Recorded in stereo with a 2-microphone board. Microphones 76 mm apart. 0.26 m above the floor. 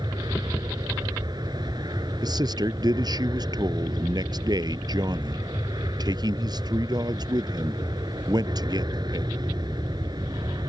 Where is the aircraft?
65° right (ahead or behind).